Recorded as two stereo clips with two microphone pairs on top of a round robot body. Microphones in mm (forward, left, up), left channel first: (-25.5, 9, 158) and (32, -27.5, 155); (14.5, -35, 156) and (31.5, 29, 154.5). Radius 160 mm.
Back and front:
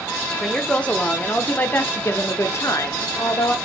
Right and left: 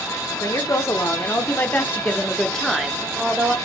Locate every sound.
0.4 s a woman speaking: 135° right, 2 m; by 3.5 s 145° left, 1.7 m